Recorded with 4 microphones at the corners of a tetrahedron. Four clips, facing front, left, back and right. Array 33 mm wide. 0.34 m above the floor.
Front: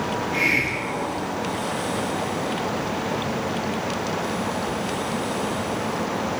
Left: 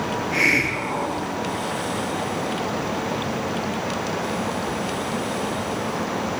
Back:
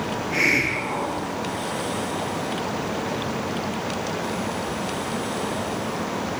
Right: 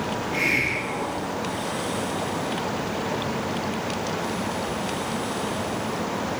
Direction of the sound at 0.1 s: 135° left.